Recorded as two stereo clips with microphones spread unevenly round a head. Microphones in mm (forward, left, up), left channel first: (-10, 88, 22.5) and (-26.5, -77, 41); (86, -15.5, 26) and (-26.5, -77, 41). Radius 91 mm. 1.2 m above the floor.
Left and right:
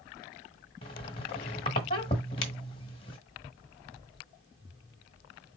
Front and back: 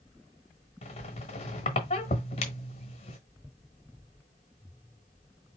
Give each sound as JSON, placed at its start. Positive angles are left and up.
{"t": 0.8, "sound": "a squeak", "azimuth_deg": 35, "distance_m": 1.1}